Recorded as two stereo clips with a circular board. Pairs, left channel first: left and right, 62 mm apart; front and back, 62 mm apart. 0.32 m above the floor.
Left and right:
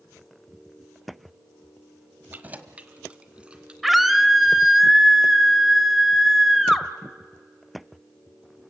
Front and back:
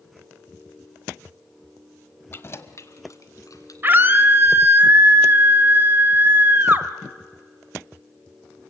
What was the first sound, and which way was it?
Keys jangling, 40° right.